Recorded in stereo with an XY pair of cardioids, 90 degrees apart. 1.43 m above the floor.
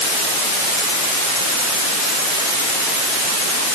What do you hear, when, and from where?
Only background noise.